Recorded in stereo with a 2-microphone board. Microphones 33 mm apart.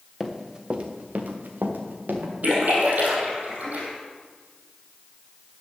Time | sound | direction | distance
0.2 | running footsteps | 10° right (ahead or behind) | 1.8 m
2.4 | a splash | 65° right (ahead or behind) | 3.5 m